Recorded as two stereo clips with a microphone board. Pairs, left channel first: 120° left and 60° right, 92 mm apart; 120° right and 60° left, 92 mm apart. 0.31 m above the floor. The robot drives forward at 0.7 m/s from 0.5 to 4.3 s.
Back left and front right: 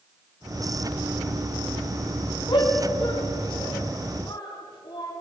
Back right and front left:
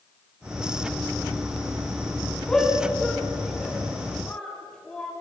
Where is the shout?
160° left, 3 m; by 5.1 s 165° left, 4.5 m.